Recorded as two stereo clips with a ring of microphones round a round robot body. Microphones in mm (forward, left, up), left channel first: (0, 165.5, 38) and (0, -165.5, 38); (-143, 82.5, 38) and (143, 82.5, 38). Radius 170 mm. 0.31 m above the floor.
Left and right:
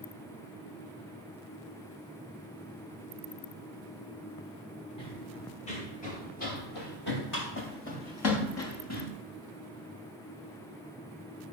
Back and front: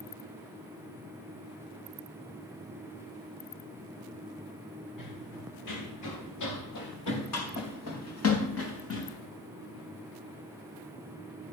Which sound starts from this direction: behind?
Running footsteps, at 5.0 s.